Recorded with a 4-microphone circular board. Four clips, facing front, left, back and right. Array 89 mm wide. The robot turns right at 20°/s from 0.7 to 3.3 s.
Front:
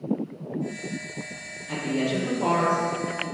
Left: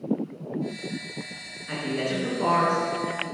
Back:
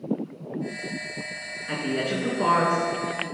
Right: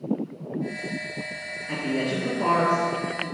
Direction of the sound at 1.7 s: 155° left.